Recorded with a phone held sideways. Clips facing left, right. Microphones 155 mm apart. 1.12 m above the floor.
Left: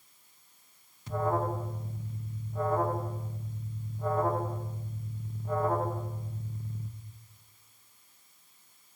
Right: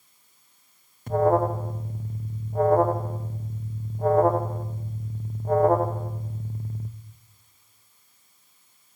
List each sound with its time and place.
1.1 s an alarm: 55° right (ahead or behind), 1.1 m